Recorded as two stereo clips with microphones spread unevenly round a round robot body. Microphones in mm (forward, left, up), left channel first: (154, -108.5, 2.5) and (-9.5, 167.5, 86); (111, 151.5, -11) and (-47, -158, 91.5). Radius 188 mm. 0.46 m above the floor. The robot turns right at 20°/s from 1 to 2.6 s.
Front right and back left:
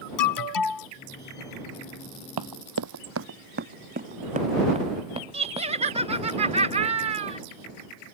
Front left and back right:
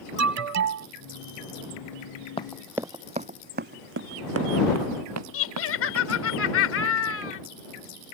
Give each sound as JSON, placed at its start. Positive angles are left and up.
{"t": 0.2, "sound": "an alarm", "azimuth_deg": -65}
{"t": 2.4, "sound": "running footsteps", "azimuth_deg": 145}
{"t": 5.3, "sound": "laughter", "azimuth_deg": 40}